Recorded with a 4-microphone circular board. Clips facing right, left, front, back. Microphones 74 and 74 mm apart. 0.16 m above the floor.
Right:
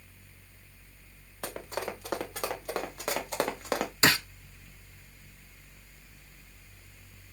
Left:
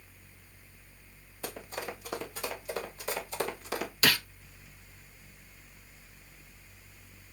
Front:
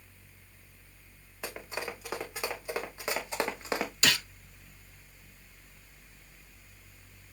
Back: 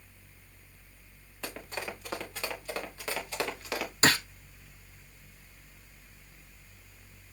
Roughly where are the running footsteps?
Right.